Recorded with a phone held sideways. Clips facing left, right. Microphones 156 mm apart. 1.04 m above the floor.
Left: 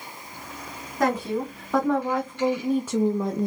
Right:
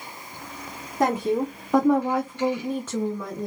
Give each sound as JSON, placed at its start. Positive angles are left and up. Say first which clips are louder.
{"t": 1.0, "sound": "a woman speaking", "louder": "right 2 dB", "side_deg": -25, "distance_m": 1.6}